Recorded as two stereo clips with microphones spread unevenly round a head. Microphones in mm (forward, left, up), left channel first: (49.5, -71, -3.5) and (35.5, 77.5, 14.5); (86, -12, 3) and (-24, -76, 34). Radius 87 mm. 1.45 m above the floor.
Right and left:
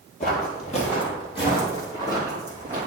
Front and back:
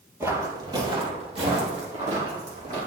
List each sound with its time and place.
0.2 s footsteps: 105° right, 1.9 m; by 2.9 s 165° right, 3.5 m